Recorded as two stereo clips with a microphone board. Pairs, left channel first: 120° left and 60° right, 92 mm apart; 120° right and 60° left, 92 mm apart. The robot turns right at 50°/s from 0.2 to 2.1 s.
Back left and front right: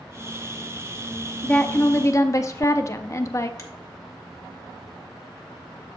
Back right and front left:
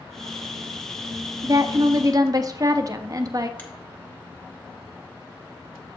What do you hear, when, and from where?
1.4 s a woman speaking: 45° left, 0.6 m; by 3.5 s 80° left, 0.6 m
3.6 s a finger snap: 175° left, 1.2 m